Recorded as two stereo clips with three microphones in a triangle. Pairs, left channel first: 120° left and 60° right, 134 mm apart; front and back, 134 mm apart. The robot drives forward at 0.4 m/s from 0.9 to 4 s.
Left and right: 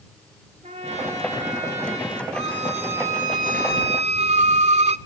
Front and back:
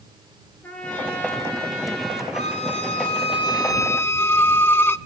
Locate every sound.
0.6 s a trumpet: 80° right, 4 m; by 2.2 s 85° right, 4 m
2.3 s a violin: 30° right, 1.0 m; by 5.0 s 70° right, 0.5 m